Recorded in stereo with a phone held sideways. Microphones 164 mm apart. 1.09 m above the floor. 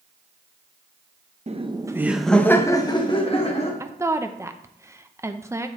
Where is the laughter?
40° right (ahead or behind), 0.8 m; by 3.7 s 40° left (ahead or behind), 1.5 m.